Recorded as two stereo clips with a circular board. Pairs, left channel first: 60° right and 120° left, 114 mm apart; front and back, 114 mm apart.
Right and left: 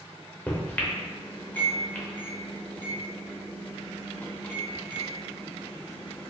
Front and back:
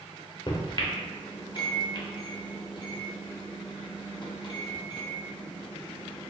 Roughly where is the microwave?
Ahead.